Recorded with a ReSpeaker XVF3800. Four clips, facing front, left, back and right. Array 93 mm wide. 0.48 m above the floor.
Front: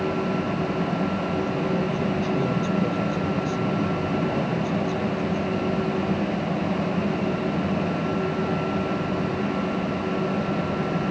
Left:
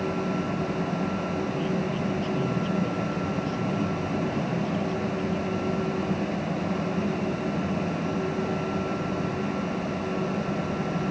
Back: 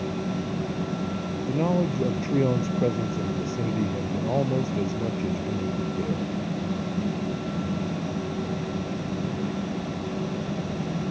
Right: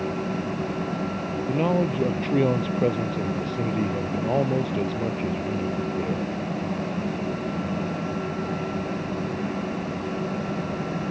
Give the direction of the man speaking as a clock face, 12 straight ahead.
4 o'clock.